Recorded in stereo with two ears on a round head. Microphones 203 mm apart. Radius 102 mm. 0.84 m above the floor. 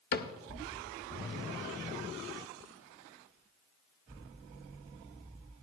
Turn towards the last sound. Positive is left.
turn(degrees=45)  # may be behind; listen again after turning